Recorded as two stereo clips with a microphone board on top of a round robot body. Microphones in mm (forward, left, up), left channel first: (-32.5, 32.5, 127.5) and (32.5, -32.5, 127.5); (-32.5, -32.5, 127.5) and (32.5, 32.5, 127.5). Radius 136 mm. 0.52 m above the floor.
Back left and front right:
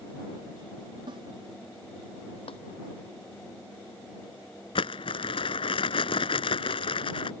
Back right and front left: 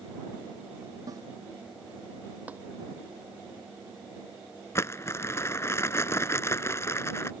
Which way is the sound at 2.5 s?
120° left.